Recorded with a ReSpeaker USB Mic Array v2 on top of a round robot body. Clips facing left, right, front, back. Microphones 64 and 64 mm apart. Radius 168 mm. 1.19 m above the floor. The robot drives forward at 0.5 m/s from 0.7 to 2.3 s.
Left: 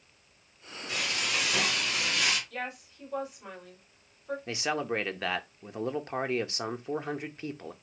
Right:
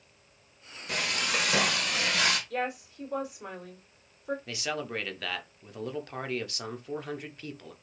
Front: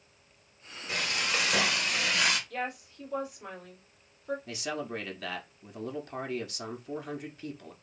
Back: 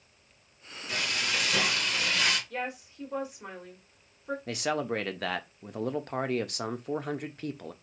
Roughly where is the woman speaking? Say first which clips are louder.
Right 5 dB, even; right.